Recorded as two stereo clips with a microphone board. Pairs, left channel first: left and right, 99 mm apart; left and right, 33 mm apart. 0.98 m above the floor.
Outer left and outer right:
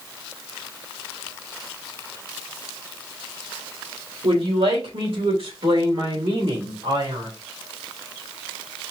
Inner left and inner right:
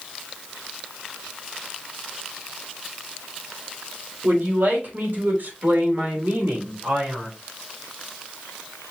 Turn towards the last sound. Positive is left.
turn(degrees=-60)  # may be behind; listen again after turning